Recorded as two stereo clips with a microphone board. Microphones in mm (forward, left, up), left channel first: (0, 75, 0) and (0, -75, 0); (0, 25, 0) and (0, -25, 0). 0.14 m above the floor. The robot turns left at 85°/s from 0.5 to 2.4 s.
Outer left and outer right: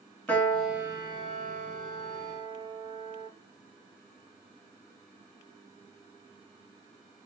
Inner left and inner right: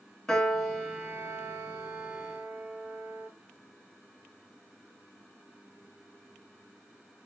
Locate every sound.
0.3 s a piano: 15° left, 0.6 m; by 3.3 s 150° right, 0.6 m